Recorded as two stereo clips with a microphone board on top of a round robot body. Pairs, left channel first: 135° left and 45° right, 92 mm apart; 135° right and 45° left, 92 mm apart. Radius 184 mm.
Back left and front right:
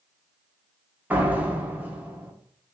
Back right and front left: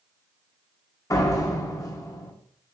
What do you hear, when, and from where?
1.1 s a door slam: 110° right, 0.9 m